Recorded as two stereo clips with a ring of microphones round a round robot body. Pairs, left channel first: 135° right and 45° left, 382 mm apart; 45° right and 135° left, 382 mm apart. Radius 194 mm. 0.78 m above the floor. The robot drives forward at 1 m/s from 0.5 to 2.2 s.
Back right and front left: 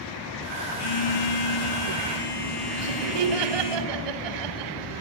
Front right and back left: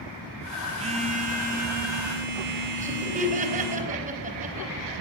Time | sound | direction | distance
0.8 | a phone buzzing | 150° right | 2.5 m
2.8 | laughter | 65° left | 4.5 m